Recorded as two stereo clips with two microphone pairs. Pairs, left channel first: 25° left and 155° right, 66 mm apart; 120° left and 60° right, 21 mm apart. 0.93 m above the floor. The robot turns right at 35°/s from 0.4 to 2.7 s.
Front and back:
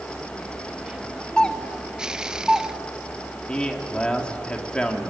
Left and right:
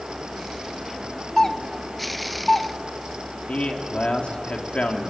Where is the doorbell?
75° left, 0.7 m; by 2.7 s 120° left, 0.7 m.